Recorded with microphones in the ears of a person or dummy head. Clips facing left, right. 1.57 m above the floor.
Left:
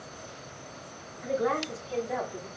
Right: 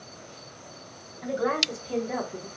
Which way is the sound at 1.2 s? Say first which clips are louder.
Right 1 dB; 75° right (ahead or behind).